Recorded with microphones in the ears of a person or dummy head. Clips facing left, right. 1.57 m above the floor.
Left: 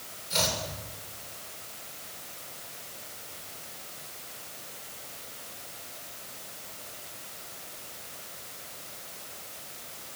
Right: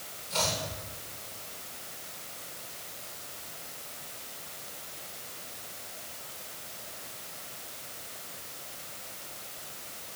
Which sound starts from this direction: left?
Chopping, at 0.3 s.